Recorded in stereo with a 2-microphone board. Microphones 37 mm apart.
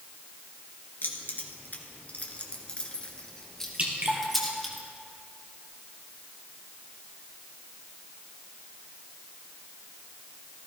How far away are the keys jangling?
About 2 m.